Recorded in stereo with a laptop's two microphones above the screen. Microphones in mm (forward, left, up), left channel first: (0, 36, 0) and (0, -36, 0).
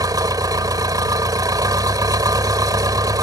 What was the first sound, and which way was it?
An engine running, 70° right (ahead or behind).